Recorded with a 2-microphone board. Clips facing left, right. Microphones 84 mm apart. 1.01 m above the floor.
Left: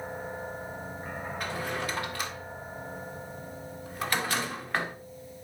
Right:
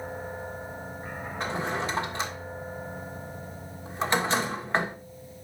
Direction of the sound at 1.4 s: 25° right (ahead or behind).